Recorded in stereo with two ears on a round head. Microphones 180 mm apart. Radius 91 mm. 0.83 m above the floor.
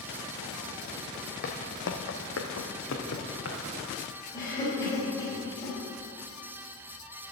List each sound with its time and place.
1.4 s footsteps: 50° left (ahead or behind), 1.7 m; by 3.6 s 60° left (ahead or behind), 3 m
4.3 s a cough: 20° left (ahead or behind), 3.5 m